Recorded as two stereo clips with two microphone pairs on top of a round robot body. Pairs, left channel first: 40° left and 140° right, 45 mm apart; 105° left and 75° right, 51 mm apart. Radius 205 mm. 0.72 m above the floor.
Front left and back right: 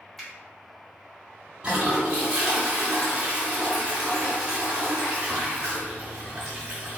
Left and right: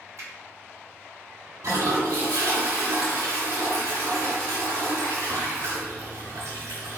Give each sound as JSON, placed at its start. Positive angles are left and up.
{"t": 0.2, "sound": "a finger snap", "azimuth_deg": -45, "distance_m": 2.0}
{"t": 1.6, "sound": "a toilet flushing", "azimuth_deg": -65, "distance_m": 0.5}